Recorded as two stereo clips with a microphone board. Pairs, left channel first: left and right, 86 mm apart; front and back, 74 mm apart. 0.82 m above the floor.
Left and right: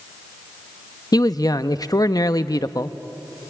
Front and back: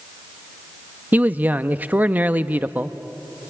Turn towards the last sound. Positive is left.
turn(degrees=120)